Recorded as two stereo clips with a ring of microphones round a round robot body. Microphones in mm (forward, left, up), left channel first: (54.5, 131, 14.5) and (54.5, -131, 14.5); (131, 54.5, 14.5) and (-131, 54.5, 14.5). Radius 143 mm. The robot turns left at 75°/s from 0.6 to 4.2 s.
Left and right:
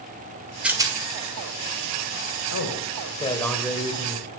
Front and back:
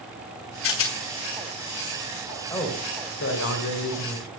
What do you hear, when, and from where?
0.6 s a rattle: 5° right, 1.9 m; by 1.0 s 30° right, 1.9 m
2.5 s a man speaking: 80° left, 1.8 m; by 4.3 s 50° right, 1.8 m